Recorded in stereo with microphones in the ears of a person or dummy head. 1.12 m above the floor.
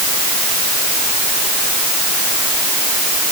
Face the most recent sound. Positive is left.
No sound to turn to.